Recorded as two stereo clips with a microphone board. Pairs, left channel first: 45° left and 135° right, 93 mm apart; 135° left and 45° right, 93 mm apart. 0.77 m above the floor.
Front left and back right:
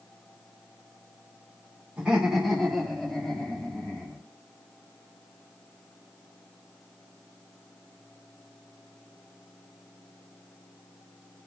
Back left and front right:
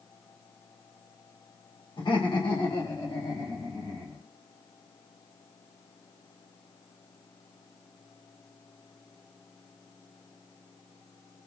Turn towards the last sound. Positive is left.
turn(degrees=115)